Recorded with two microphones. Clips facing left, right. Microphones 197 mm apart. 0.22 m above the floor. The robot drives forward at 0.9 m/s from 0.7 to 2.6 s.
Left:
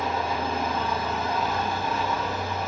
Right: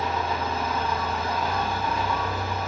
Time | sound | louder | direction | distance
0.0 | an engine running | even | 30° left (ahead or behind) | 7 m